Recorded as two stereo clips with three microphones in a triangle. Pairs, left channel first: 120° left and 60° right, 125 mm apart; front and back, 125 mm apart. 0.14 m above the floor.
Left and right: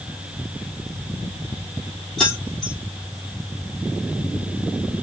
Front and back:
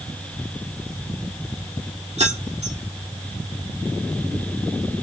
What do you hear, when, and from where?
2.2 s keys jangling: 150° right, 3 m